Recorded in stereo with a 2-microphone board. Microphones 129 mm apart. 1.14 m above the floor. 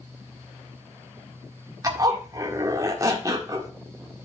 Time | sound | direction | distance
1.8 | a zipper | 30° right (ahead or behind) | 1.5 m